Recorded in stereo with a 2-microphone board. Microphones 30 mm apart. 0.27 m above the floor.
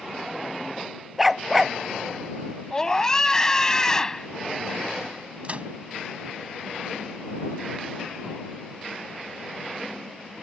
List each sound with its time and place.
1.2 s a dog barking: centre (ahead or behind)
2.7 s a scream: 15° left (ahead or behind)
5.4 s a microwave: 45° right (ahead or behind)